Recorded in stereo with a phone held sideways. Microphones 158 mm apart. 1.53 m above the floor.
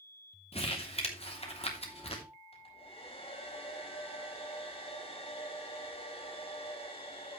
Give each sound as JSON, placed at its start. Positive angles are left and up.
{"t": 0.5, "sound": "crumpling", "side_deg": 40, "distance_m": 3.0}
{"t": 2.5, "sound": "a hair dryer", "side_deg": 40, "distance_m": 5.5}